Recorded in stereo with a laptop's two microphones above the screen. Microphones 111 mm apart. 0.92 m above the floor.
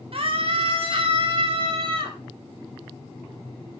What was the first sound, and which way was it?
A scream, 60° right (ahead or behind).